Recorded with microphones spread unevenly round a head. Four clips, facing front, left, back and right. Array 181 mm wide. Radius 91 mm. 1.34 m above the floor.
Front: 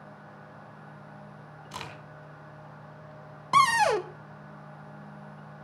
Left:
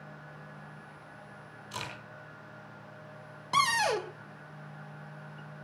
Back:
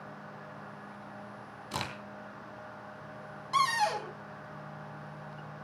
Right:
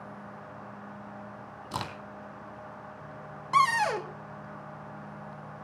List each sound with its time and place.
1.7 s a crack: 125° right, 3 m
3.5 s a cupboard door: 10° left, 1.0 m